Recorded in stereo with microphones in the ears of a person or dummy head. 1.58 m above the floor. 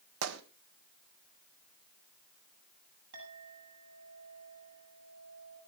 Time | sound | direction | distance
0.2 | a gunshot | 80° right | 1.5 m
3.1 | a clink | 80° right | 6.5 m